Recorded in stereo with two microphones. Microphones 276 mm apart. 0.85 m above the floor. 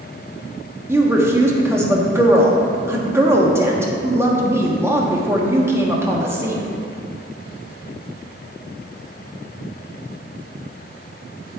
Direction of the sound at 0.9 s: 10° right (ahead or behind).